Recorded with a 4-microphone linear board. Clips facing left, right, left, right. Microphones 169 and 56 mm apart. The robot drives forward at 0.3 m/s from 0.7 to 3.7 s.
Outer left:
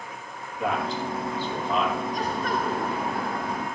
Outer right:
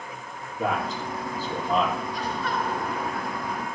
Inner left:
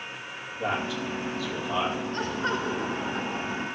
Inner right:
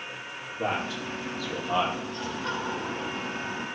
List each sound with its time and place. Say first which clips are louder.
0.6 s a man speaking: even, inner left 1 dB; 40° right (ahead or behind), 5.5 m
2.1 s laughter: outer left 2 dB, inner left 3 dB; 40° left (ahead or behind), 1.8 m; by 3.7 s 35° left (ahead or behind), 2 m